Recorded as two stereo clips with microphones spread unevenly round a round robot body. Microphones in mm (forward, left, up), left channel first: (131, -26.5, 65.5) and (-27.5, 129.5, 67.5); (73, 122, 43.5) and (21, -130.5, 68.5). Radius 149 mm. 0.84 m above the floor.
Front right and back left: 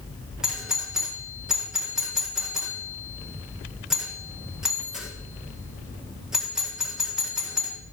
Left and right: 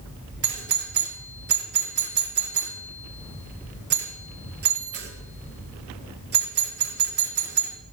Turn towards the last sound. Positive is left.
turn(degrees=-140)